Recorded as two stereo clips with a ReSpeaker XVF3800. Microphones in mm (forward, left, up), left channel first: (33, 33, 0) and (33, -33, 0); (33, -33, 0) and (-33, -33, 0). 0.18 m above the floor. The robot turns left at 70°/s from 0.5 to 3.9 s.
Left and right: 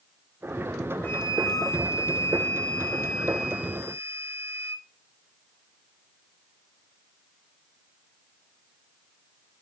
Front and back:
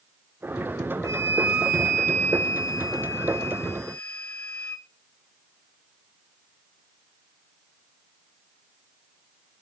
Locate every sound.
1.0 s a flute: 145° left, 1.3 m; by 4.9 s 55° right, 1.3 m